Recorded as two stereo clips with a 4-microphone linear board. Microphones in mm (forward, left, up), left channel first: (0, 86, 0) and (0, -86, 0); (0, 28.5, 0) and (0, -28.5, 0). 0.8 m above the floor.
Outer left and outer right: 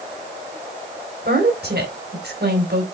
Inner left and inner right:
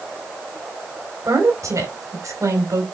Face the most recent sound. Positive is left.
turn(degrees=-85)